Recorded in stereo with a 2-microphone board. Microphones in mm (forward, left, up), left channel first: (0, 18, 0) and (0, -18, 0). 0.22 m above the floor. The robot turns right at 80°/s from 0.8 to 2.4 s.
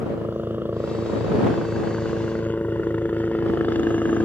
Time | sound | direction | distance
0.0 | a helicopter | 80° right | ?